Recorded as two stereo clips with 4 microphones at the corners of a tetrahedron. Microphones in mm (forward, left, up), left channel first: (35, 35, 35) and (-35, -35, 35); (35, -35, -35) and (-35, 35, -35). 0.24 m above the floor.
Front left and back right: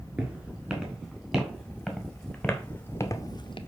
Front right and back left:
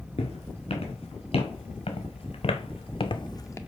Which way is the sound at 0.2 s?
60° right.